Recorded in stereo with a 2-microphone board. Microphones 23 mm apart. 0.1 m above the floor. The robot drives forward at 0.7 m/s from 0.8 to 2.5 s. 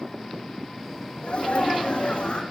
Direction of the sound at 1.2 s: 60° left (ahead or behind).